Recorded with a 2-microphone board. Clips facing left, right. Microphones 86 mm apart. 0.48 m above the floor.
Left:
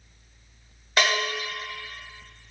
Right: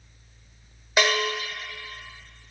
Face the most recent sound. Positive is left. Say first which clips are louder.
# right 1 dB
turn(degrees=-10)  # may be behind; listen again after turning